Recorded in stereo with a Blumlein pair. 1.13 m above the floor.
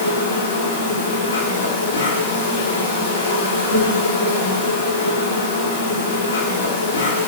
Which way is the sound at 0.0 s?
70° left.